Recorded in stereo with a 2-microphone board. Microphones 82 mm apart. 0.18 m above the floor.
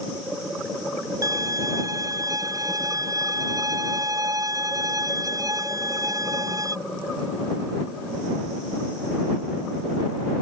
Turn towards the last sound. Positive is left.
turn(degrees=-45)  # may be behind; listen again after turning